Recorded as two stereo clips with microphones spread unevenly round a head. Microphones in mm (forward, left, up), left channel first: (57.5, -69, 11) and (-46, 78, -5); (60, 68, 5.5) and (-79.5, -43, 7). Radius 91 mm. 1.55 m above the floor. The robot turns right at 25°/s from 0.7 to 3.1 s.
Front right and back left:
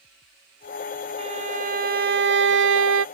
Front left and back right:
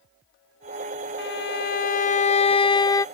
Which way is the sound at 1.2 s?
65° left.